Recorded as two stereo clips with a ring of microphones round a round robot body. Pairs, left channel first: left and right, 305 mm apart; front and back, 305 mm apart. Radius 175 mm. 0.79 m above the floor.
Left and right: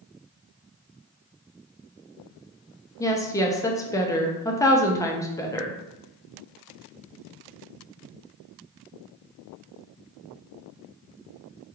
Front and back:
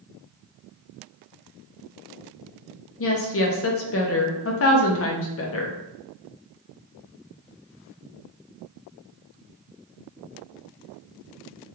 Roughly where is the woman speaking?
Ahead.